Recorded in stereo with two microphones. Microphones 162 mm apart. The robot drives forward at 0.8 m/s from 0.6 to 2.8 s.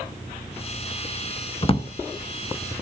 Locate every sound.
1.6 s a drawer: 35° left (ahead or behind), 0.7 m; by 1.9 s 40° left (ahead or behind), 0.6 m